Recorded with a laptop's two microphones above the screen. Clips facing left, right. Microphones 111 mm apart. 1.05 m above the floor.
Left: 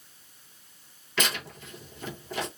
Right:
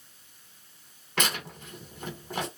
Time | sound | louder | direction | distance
1.2 | tearing paper | even | 50° right (ahead or behind) | 1.0 m